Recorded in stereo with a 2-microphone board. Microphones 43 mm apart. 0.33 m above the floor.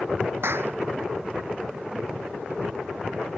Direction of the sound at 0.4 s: 65° right (ahead or behind).